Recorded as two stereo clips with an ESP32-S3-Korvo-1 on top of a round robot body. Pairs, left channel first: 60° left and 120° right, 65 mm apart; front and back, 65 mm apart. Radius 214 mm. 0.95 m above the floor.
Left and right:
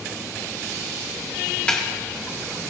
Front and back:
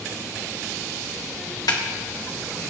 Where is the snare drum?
10° right, 1.4 m.